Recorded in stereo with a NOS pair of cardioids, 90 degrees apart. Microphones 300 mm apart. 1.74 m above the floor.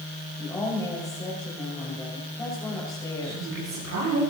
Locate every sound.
0.4 s a woman speaking: 10° left, 5.5 m
3.2 s a woman speaking: 65° right, 8 m